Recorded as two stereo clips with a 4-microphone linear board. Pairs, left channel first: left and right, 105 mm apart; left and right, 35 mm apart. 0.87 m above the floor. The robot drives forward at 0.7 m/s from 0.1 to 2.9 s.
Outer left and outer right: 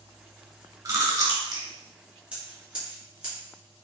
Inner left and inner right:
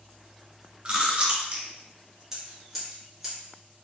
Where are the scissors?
10° right (ahead or behind), 1.6 m.